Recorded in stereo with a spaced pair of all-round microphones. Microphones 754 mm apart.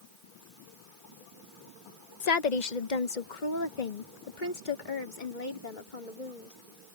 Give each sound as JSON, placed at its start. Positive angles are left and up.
{"t": 2.2, "sound": "a woman speaking", "side_deg": 60}